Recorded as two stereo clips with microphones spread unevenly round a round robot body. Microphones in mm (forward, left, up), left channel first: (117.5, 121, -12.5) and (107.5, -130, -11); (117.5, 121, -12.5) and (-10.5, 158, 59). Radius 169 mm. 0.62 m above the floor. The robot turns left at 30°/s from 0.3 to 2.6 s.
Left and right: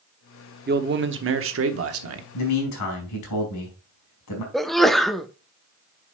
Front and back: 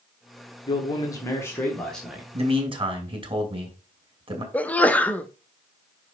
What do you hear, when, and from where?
0.7 s a man speaking: 45° right, 1.1 m; by 2.2 s 95° right, 1.1 m
2.3 s a man speaking: 115° left, 3 m; by 4.4 s 105° left, 3 m
4.5 s a sneeze: straight ahead, 0.7 m